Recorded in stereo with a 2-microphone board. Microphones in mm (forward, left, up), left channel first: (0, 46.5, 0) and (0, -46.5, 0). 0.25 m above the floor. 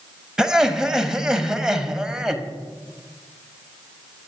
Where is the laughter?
5° right (ahead or behind), 1.1 m.